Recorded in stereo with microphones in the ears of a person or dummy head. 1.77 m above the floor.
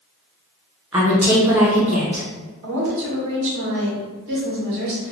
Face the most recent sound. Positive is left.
turn(degrees=-60)  # may be behind; listen again after turning